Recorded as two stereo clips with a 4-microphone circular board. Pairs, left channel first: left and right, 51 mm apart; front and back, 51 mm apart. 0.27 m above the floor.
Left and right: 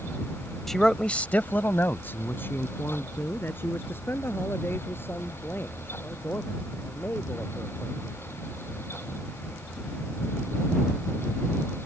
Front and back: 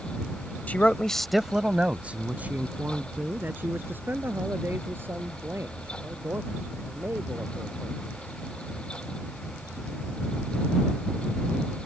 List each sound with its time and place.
0.7 s a man speaking: 10° left; by 8.4 s 135° left